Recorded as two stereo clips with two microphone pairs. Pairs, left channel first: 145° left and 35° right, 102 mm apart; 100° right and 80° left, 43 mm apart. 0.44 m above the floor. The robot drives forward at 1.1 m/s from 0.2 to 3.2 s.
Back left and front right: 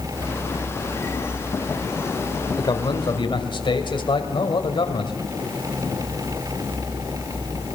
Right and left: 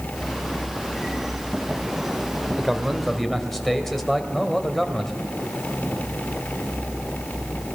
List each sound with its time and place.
2.6 s a man speaking: 170° left, 1.6 m; by 5.2 s 175° left, 2 m